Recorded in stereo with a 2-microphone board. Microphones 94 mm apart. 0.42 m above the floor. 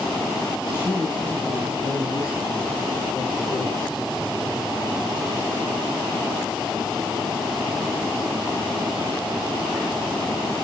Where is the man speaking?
25° left (ahead or behind), 6.5 m; by 4.0 s 45° left (ahead or behind), 7 m.